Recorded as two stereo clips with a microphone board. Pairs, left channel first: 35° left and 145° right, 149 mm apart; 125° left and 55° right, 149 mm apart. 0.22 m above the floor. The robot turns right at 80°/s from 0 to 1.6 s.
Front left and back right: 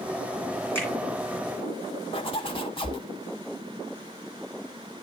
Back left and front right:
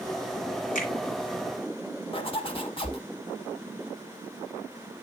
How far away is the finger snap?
About 2.5 m.